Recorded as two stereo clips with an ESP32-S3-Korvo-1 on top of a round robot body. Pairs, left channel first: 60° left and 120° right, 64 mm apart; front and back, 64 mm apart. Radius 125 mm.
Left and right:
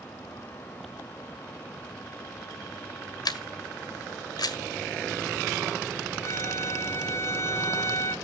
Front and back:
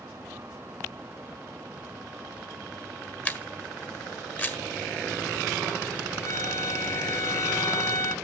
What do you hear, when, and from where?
3.2 s a camera shutter: 65° left, 1.7 m
6.2 s a violin: 30° left, 1.9 m